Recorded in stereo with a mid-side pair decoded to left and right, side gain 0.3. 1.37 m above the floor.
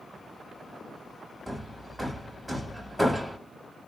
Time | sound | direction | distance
1.5 | hammering | 15° right | 1.9 m